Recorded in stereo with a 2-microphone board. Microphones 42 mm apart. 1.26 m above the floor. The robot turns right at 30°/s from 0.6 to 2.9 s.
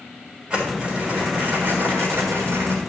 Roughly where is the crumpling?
Behind right.